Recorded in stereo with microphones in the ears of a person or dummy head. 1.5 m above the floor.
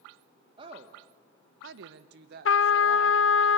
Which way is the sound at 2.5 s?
70° left (ahead or behind).